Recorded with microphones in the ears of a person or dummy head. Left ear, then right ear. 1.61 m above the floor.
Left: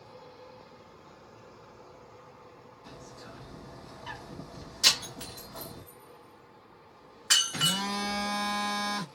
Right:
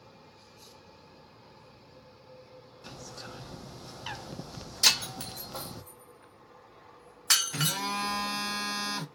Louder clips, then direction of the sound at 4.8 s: Right 1 dB; 35° right (ahead or behind).